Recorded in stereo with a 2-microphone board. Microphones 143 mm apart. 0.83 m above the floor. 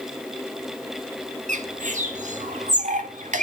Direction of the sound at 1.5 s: 60° right (ahead or behind).